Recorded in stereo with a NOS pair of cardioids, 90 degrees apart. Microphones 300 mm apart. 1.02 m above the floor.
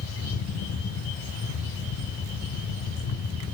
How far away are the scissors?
No scissors in this recording.